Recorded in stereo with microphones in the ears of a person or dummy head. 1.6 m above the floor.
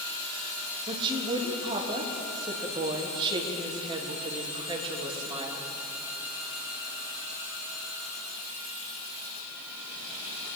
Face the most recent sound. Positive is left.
turn(degrees=-20)  # may be behind; listen again after turning